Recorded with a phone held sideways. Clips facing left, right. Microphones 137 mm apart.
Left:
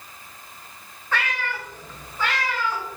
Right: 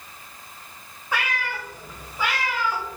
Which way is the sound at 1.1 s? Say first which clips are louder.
Even; 10° right (ahead or behind).